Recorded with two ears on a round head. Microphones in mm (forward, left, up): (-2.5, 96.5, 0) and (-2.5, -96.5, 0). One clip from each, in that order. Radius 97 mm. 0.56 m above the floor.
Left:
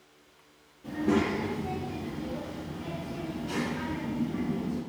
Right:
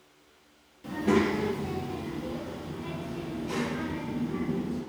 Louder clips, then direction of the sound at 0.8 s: Right 2 dB; 45° right (ahead or behind).